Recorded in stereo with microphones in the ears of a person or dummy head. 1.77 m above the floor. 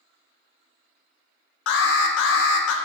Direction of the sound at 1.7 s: 70° left (ahead or behind).